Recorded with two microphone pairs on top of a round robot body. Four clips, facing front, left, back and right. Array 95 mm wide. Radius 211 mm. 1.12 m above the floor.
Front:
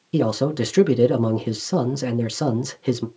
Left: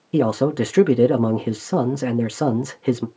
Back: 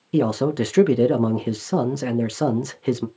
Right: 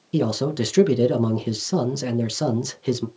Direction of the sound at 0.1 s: 105° left.